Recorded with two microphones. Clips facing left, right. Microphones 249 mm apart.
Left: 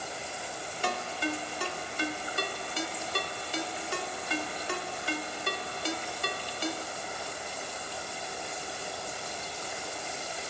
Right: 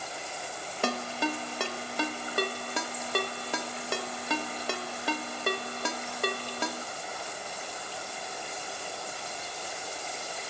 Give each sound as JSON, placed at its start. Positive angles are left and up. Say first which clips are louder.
{"t": 0.8, "sound": "a ringtone", "louder": "right 3 dB", "side_deg": -75, "distance_m": 0.9}